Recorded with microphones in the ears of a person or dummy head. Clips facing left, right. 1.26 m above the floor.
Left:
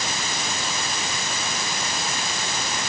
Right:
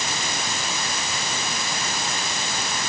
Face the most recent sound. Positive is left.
No sound to turn to.